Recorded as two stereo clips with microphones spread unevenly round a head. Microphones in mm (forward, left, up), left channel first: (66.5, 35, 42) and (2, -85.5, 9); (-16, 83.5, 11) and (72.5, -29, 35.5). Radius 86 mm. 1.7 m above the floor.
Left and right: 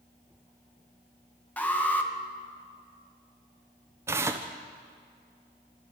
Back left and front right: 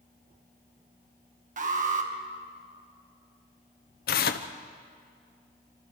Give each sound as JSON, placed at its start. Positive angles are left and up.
{"t": 1.6, "sound": "an alarm", "azimuth_deg": -20, "distance_m": 2.5}
{"t": 4.1, "sound": "tearing paper", "azimuth_deg": 165, "distance_m": 1.0}